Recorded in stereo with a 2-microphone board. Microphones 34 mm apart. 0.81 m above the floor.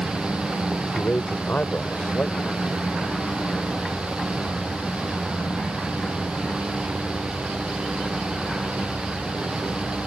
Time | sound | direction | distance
0.9 | a man speaking | 70° left (ahead or behind) | ?